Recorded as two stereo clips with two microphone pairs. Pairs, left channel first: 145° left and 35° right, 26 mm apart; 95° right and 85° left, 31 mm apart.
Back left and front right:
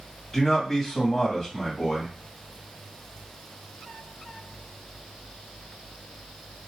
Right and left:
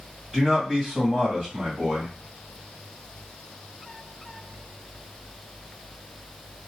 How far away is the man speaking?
About 1.5 m.